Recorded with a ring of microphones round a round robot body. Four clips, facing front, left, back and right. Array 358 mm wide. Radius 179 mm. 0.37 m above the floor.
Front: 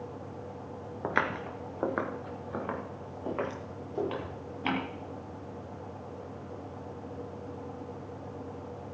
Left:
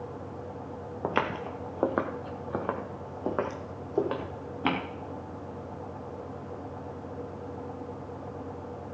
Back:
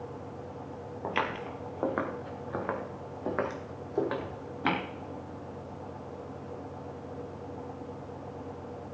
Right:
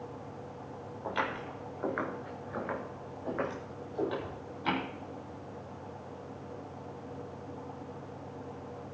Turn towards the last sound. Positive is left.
turn(degrees=110)